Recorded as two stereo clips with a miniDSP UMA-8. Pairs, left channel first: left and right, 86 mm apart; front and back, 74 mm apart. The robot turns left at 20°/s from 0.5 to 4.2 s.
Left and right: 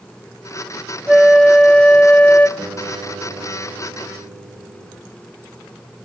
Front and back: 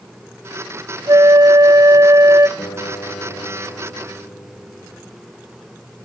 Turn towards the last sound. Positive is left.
turn(degrees=-65)